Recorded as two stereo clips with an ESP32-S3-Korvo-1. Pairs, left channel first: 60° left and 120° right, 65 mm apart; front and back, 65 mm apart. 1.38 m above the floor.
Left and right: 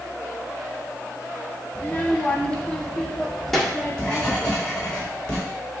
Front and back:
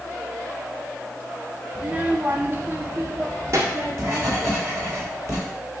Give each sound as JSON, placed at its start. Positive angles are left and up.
{"t": 1.8, "sound": "a child speaking", "azimuth_deg": 115, "distance_m": 1.0}
{"t": 3.5, "sound": "writing", "azimuth_deg": 140, "distance_m": 4.0}